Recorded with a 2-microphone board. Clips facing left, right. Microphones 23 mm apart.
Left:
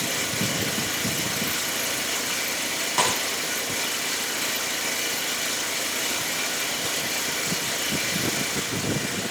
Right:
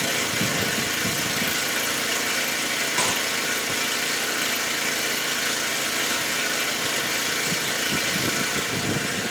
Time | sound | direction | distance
0.0 | an engine running | 55° right (ahead or behind) | 8.5 m
3.0 | a snare drum | 15° left (ahead or behind) | 3.5 m